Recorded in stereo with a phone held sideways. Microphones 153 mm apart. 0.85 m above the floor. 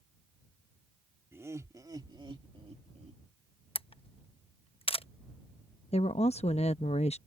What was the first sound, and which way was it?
Laughter, 15° right (ahead or behind).